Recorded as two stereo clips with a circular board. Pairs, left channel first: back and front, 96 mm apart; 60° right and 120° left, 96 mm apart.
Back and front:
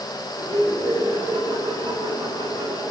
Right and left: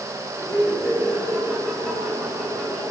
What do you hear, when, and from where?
0.4 s laughter: straight ahead, 6 m; by 2.8 s 15° left, 6 m